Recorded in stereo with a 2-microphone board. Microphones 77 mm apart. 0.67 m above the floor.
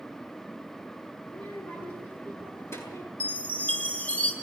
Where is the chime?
15° left (ahead or behind), 5 m.